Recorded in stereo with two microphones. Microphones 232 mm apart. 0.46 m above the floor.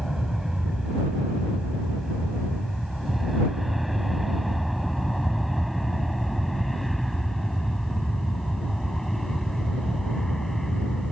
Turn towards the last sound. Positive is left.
turn(degrees=0)  # may be behind; listen again after turning